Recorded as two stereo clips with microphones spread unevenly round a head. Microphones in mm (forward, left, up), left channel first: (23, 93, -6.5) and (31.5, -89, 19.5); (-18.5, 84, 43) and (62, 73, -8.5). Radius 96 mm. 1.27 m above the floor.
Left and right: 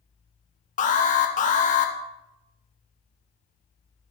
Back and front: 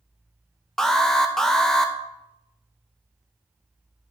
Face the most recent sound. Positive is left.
turn(degrees=65)